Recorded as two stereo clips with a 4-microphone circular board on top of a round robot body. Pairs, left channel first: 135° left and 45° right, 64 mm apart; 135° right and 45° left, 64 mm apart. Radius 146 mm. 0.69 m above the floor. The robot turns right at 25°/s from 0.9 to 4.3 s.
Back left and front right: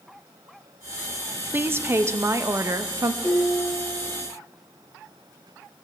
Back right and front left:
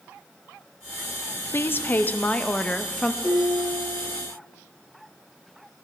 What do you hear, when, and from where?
1.5 s a woman speaking: 95° right, 0.7 m; by 3.1 s 55° right, 0.7 m
3.2 s dishes clattering: 70° right, 6.5 m; by 4.3 s 45° right, 6.5 m